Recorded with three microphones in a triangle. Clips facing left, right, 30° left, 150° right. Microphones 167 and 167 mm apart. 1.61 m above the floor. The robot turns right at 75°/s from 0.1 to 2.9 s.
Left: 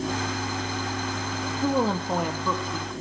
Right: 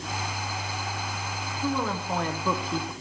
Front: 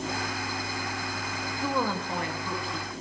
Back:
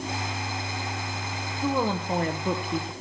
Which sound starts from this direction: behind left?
A woman speaking, at 1.6 s.